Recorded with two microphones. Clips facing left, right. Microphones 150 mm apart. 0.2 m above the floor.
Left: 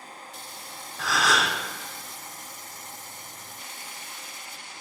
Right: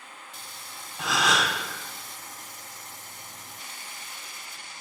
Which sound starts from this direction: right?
A gasp, at 1.0 s.